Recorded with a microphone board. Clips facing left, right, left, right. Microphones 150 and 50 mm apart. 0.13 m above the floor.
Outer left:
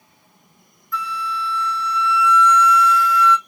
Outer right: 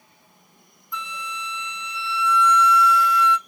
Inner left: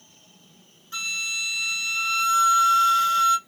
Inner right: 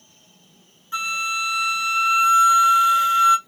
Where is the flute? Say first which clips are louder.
Outer left 8 dB, inner right 6 dB; 20° right (ahead or behind), 0.6 m.